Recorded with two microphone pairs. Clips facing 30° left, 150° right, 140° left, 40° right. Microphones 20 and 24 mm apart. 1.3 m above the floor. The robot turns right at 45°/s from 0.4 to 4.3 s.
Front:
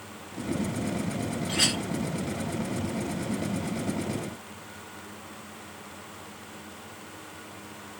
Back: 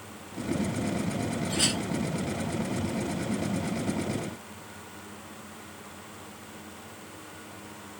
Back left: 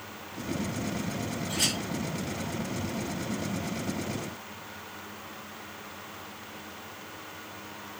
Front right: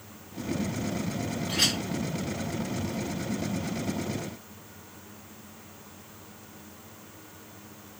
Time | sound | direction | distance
1.5 | a clink | straight ahead | 1.2 m